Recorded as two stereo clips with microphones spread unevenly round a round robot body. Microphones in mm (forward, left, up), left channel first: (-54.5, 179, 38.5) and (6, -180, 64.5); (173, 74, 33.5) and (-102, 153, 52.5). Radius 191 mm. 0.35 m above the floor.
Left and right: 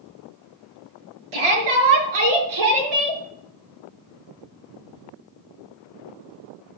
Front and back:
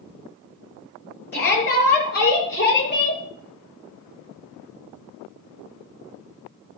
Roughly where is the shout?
Right.